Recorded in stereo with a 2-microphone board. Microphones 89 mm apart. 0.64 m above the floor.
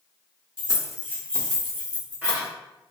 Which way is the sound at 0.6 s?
40° left (ahead or behind).